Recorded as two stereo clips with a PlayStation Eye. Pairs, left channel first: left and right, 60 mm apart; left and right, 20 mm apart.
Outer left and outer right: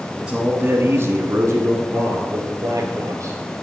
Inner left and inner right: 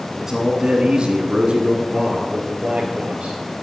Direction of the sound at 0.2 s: 15° right (ahead or behind).